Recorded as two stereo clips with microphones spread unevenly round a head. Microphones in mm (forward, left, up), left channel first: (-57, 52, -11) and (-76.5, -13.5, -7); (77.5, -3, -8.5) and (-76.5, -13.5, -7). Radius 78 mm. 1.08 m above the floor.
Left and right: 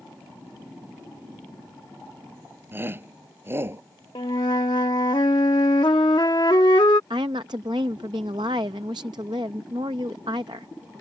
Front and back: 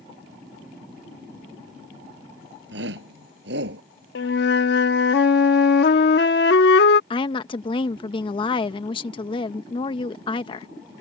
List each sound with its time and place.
2.7 s a shout: 165° right; by 3.8 s 160° right
4.2 s a flute: 25° left
7.1 s a woman speaking: 55° right